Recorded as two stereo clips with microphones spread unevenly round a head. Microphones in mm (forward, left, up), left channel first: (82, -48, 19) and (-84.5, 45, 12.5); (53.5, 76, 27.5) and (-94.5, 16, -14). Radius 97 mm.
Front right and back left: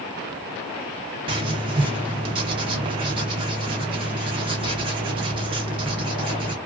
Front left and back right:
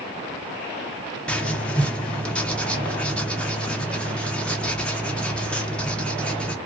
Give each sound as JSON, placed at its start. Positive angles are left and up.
{"t": 1.3, "sound": "writing", "azimuth_deg": 90, "distance_m": 0.7}